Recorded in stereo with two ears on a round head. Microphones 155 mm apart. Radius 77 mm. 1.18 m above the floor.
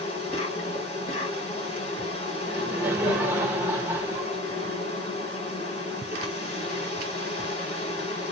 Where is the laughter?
10° right (ahead or behind), 1.6 m.